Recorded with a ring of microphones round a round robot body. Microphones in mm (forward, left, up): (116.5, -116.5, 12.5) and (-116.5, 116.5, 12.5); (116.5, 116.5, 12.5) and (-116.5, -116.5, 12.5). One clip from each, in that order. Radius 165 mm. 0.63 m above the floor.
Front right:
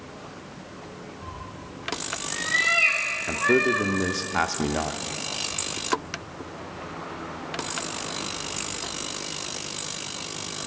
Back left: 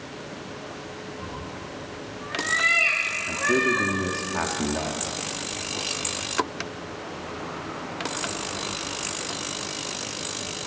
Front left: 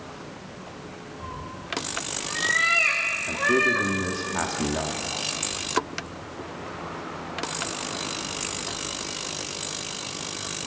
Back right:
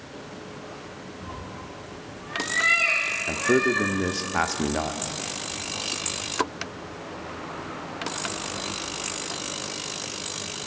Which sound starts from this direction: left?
A cat meowing, at 1.2 s.